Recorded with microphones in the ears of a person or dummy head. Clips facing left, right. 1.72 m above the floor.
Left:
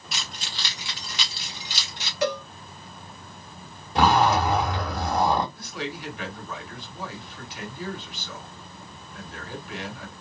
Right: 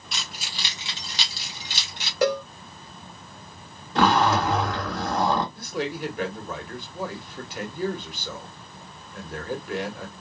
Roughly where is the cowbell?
Right.